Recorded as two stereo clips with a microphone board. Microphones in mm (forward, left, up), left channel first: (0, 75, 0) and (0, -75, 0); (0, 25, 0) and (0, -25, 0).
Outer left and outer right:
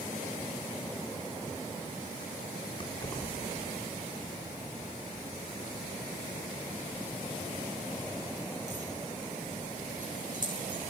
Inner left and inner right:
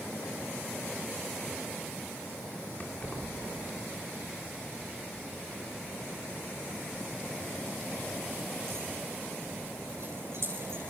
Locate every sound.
2.8 s keys jangling: 35° left (ahead or behind), 3 m; by 10.8 s 60° right (ahead or behind), 10.5 m